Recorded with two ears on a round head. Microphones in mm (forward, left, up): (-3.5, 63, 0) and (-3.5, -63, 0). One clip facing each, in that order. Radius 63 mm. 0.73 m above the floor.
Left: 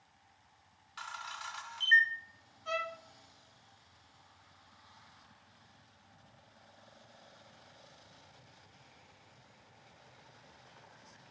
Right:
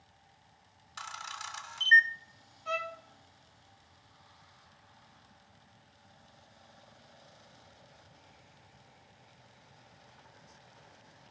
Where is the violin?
25° right (ahead or behind), 1.6 m.